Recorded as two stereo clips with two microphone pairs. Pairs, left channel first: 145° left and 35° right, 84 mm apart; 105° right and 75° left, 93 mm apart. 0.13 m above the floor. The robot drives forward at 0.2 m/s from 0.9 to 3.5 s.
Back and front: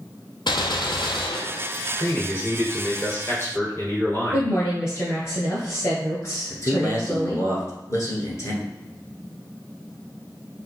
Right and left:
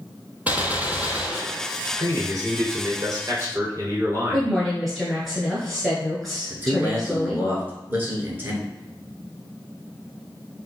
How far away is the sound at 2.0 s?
About 1.8 m.